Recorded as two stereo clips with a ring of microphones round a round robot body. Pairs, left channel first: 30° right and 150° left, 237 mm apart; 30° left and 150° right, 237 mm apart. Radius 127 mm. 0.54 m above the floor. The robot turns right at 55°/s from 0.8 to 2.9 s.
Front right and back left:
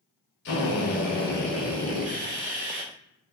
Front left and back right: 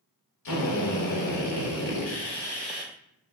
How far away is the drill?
About 1.2 m.